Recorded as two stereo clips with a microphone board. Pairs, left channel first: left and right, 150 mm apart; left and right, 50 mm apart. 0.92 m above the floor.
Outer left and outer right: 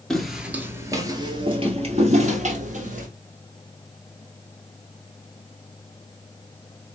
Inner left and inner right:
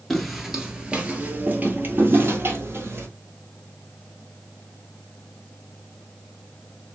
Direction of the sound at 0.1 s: 5° left (ahead or behind).